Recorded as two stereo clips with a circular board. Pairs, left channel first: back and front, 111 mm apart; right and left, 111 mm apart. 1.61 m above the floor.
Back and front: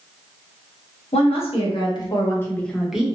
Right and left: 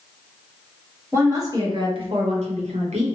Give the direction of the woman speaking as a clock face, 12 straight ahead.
7 o'clock.